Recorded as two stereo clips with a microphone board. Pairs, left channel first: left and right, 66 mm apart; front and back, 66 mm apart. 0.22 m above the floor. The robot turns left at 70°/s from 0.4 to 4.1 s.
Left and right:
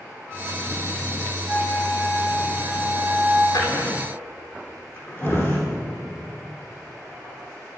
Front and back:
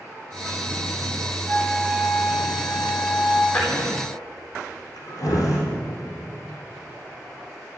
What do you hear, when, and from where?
1.4 s a flute: 40° right, 4 m; by 3.4 s straight behind, 4 m
3.5 s a drawer: 75° left, 4 m; by 5.6 s 35° left, 4 m